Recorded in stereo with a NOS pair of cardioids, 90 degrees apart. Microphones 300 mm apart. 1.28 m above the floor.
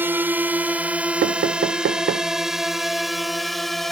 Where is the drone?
5° right; by 3.9 s straight ahead.